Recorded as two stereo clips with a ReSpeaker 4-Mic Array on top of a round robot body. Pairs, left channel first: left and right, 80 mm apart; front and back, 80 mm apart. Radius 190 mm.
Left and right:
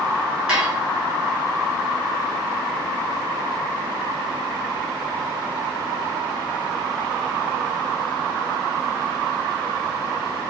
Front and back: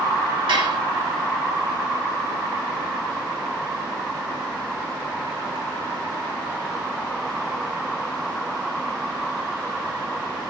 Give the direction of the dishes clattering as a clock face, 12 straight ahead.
6 o'clock.